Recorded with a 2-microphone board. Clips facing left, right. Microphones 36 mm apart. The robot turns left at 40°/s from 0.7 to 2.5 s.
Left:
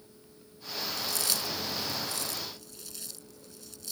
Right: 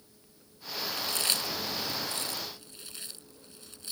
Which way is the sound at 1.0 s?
40° right (ahead or behind).